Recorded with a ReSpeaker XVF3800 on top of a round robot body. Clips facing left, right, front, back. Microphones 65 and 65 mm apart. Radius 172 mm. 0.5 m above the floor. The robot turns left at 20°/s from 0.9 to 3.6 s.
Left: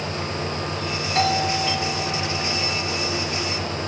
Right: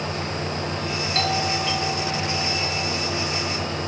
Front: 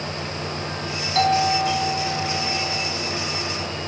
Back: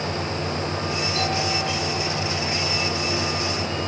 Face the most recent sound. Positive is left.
turn(degrees=-25)